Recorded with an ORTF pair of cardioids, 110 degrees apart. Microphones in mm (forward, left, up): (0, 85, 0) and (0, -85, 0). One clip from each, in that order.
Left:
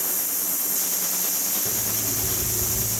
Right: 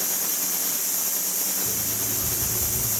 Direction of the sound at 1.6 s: 20° left.